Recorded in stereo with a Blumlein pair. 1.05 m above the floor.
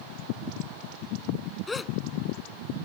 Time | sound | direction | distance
1.7 | a gasp | 10° left | ?